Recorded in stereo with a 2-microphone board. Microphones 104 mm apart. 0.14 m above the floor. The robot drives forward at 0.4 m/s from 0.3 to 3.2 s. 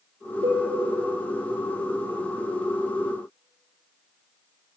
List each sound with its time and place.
0.4 s a cowbell: 80° right, 7.5 m